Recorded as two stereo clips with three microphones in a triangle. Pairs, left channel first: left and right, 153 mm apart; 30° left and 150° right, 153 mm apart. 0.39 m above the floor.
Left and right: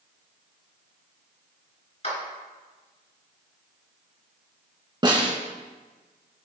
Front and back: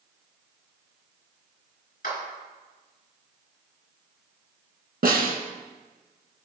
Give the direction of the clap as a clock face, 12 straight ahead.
10 o'clock.